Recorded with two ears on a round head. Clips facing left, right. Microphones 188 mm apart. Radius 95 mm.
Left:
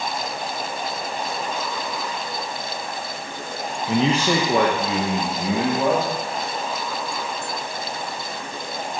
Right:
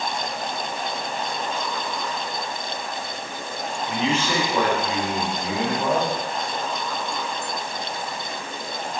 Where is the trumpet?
I don't hear a trumpet.